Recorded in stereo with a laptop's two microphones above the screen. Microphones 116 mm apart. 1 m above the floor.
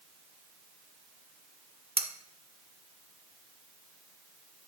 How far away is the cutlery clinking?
About 0.6 m.